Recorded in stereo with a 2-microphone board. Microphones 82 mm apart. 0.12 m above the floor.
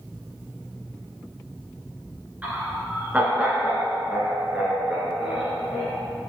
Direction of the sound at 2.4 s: 20° right (ahead or behind).